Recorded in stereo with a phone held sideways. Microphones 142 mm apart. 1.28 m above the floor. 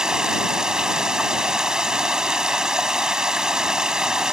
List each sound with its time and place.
0.0 s running water: 5° right (ahead or behind)